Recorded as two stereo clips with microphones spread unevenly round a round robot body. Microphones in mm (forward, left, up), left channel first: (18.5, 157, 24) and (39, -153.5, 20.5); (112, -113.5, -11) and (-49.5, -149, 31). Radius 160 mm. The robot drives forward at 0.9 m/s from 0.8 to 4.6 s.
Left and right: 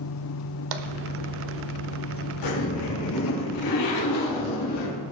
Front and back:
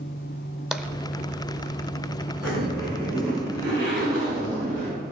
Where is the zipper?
110° left, 5 m; by 5.0 s 130° left, 6 m.